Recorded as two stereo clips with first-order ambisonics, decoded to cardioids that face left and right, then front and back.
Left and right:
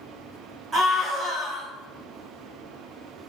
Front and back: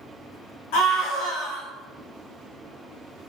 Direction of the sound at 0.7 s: 25° right.